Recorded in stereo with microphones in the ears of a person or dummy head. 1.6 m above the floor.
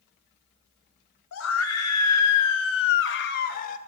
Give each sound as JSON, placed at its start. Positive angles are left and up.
{"t": 1.3, "sound": "a scream", "side_deg": 65, "distance_m": 3.0}